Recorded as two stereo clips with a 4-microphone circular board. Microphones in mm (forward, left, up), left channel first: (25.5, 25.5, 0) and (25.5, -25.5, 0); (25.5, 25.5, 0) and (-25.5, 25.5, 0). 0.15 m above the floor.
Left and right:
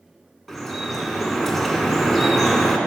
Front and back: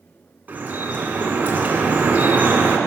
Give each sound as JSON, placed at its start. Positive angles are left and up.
{"t": 0.5, "sound": "dripping", "azimuth_deg": 175, "distance_m": 1.5}